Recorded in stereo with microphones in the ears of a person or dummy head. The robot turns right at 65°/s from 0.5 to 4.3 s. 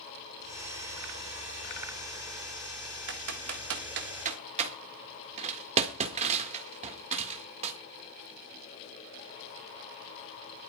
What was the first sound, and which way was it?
Typing on a keyboard, 60° right (ahead or behind).